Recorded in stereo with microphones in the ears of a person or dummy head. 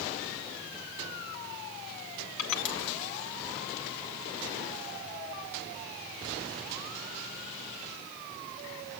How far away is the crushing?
About 2 m.